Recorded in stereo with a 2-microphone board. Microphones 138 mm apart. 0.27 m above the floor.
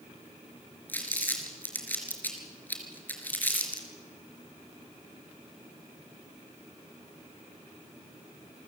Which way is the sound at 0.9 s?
15° left (ahead or behind).